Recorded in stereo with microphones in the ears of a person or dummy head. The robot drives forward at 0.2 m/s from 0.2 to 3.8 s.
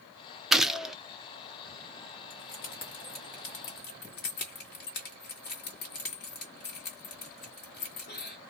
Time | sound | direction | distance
0.5 | a gunshot | 5° right (ahead or behind) | 0.6 m
2.3 | keys jangling | 50° left (ahead or behind) | 1.3 m